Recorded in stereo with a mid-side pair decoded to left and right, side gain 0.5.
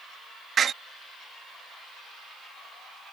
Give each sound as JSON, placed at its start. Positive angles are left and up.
{"t": 0.6, "sound": "a door slam", "azimuth_deg": -45}